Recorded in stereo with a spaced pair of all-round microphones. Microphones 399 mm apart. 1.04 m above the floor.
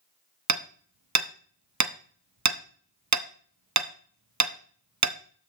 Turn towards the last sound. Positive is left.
turn(degrees=-45)  # may be behind; listen again after turning